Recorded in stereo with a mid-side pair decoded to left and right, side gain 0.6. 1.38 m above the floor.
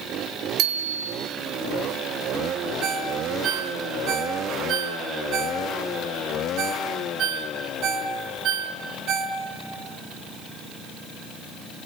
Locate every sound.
0.6 s a bicycle bell: 55° right, 3 m
2.8 s a ringtone: 55° right, 3 m